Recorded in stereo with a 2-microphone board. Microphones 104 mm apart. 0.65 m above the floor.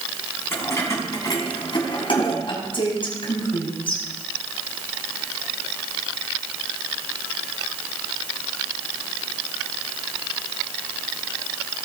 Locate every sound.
0.5 s keys jangling: 25° left (ahead or behind), 4.5 m; by 2.4 s 60° left (ahead or behind), 5 m
2.5 s a woman speaking: 55° left (ahead or behind), 4.5 m